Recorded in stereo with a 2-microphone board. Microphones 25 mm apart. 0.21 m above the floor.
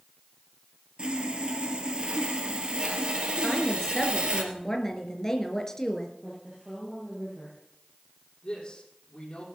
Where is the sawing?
45° right (ahead or behind), 2.5 m.